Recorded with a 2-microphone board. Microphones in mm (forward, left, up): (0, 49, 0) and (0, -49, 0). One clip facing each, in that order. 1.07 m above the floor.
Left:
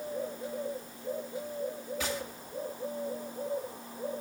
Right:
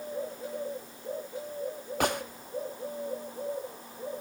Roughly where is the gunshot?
Right.